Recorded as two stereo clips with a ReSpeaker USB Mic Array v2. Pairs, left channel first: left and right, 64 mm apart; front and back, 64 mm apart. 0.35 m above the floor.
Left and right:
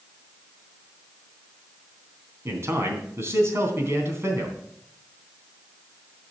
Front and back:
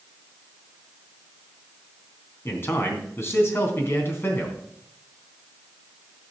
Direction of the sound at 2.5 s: 50° right.